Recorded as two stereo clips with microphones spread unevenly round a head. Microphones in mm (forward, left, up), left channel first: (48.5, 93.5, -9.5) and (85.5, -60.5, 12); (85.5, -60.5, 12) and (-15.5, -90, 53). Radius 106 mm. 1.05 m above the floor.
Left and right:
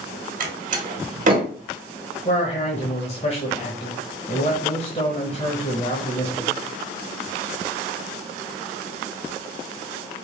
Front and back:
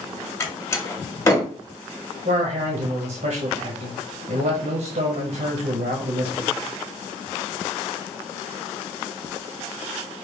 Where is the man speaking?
155° left, 1.0 m.